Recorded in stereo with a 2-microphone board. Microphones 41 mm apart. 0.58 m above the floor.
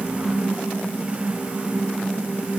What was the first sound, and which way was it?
Only background noise.